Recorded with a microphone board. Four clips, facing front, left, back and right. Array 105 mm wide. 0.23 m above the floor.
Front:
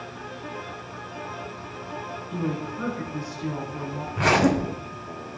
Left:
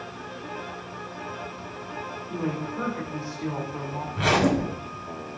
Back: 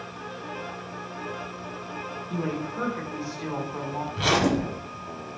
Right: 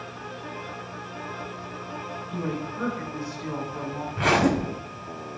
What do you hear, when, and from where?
2.3 s a woman speaking: 150° left, 1.3 m
4.1 s a zipper: 20° right, 0.7 m